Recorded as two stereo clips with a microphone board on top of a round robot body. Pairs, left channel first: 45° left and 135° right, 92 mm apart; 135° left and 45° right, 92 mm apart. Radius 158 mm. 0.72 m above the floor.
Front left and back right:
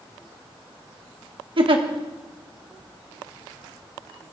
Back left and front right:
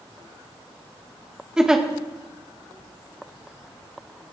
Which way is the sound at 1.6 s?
130° right.